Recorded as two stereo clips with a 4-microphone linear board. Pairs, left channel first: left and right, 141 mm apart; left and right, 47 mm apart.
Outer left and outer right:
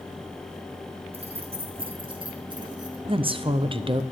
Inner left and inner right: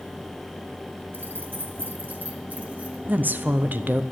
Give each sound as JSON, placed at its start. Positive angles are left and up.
{"t": 1.1, "sound": "keys jangling", "side_deg": -50, "distance_m": 1.1}
{"t": 3.1, "sound": "a woman speaking", "side_deg": -40, "distance_m": 0.6}